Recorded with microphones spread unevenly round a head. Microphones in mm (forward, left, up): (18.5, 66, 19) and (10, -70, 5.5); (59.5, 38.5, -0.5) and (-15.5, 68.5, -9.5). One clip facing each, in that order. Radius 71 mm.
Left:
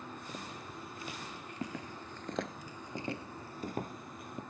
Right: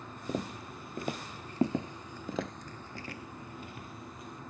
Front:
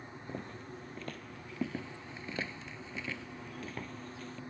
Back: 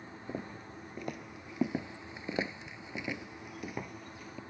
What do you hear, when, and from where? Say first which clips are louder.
0.3 s footsteps: right 8 dB, back 2 dB; 120° right; by 4.4 s 75° left